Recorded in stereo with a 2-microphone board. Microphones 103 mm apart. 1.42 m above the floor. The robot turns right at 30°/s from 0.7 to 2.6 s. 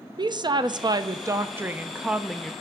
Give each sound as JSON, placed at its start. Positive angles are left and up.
{"t": 0.2, "sound": "a woman speaking", "azimuth_deg": -50, "distance_m": 0.5}